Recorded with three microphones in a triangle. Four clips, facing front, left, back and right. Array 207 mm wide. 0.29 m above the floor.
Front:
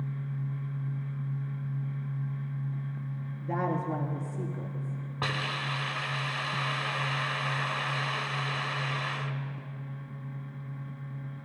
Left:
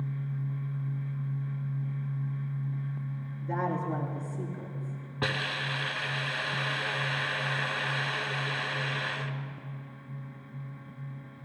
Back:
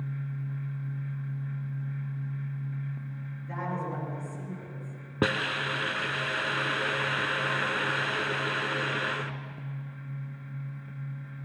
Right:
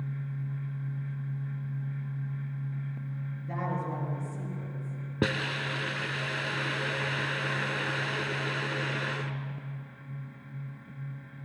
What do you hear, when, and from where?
3.4 s a woman speaking: 20° left, 4.5 m
5.2 s a hiss: 140° right, 0.7 m